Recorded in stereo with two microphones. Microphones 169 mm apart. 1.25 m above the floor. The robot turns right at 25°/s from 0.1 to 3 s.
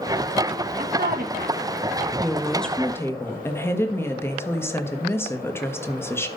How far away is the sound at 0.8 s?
About 1.6 m.